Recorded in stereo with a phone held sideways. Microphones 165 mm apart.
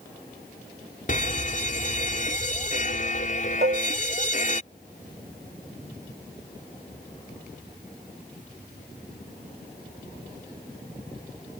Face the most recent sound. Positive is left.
turn(degrees=-60)  # may be behind; listen again after turning